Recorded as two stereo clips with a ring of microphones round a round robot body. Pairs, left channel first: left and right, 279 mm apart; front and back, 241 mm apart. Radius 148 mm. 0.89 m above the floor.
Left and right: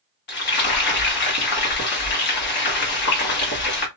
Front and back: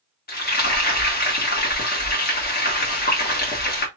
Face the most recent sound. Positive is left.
turn(degrees=45)